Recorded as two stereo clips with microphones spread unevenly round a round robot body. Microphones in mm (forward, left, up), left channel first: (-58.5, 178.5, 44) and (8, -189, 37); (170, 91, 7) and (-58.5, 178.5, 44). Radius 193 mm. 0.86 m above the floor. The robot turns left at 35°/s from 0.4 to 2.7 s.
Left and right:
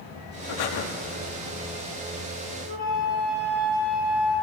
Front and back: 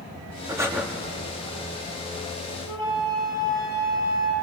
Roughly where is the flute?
Left.